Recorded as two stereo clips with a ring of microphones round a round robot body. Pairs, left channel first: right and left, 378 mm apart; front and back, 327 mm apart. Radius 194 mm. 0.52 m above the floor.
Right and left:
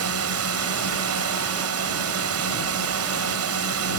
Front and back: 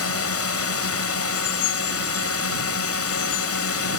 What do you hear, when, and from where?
0.0 s a drone: 40° left